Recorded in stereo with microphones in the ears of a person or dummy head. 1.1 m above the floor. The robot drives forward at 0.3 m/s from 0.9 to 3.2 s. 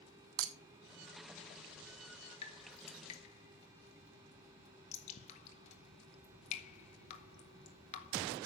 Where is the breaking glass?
75° right (ahead or behind), 1.0 m.